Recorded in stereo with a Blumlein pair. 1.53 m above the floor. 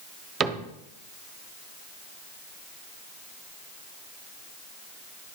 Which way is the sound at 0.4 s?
20° right.